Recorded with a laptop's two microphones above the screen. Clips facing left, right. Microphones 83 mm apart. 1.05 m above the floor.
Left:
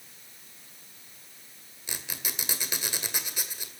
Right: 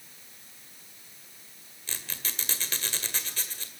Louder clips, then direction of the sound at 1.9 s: Left 1 dB; 15° left (ahead or behind).